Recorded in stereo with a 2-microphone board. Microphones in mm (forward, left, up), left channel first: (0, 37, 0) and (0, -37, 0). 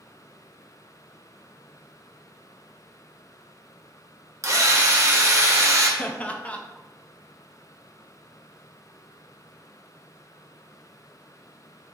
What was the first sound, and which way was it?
A drill, 45° right (ahead or behind).